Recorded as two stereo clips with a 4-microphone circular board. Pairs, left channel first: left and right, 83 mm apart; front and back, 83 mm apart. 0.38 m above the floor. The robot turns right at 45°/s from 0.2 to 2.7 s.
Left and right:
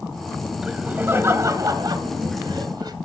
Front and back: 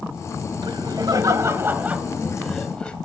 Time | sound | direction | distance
0.6 | laughter | 170° right | 1.6 m